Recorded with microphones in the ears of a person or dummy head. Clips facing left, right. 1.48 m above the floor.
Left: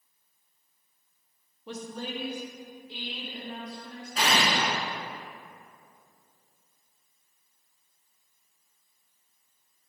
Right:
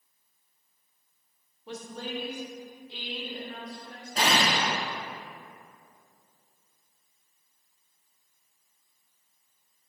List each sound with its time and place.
1.7 s a woman speaking: 85° left, 1.3 m; by 4.4 s 65° left (ahead or behind), 4.5 m
4.2 s an explosion: 30° right (ahead or behind), 0.8 m